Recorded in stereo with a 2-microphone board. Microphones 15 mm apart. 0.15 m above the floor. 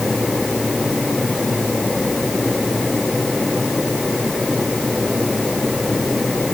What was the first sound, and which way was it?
Only background noise.